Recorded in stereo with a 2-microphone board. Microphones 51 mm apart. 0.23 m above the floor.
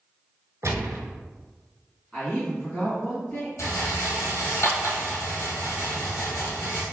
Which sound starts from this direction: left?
A rattle, at 3.6 s.